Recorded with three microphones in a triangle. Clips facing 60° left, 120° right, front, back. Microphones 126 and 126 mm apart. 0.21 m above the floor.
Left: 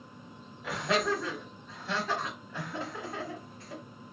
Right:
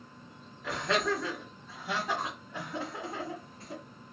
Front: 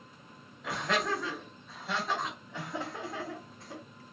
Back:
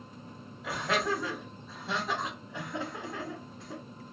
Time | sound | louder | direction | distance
0.6 | laughter | left 1 dB, back 1 dB | 110° left | 1.4 m